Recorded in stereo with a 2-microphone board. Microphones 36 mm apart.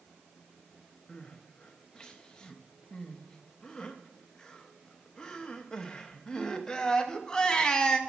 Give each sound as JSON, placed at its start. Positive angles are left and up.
{"t": 1.1, "sound": "crying", "side_deg": 20, "distance_m": 0.8}